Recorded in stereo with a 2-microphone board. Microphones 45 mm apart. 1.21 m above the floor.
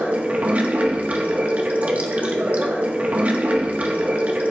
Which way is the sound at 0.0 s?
30° right (ahead or behind).